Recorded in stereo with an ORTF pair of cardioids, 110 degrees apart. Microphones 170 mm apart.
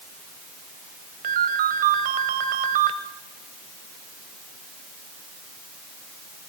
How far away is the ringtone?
About 2 m.